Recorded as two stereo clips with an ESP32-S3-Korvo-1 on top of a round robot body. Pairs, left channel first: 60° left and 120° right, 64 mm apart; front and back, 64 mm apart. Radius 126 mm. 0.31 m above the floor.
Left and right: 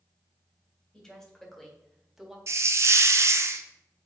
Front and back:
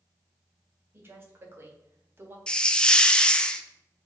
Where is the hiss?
75° right, 0.5 m.